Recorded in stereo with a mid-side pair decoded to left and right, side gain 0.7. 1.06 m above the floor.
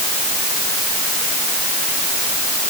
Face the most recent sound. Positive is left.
No sound to turn to.